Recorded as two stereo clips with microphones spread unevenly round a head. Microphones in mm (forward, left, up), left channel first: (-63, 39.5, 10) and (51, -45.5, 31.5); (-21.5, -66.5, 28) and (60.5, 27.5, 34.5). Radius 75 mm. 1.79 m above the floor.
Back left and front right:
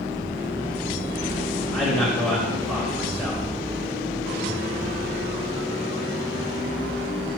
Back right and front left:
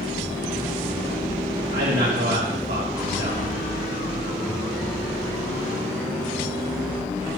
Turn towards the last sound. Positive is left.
turn(degrees=55)